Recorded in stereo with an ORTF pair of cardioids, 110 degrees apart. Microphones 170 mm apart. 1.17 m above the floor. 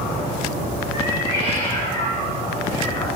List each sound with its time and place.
0.9 s a cat meowing: 40° left, 3.5 m; by 3.1 s 35° left, 5 m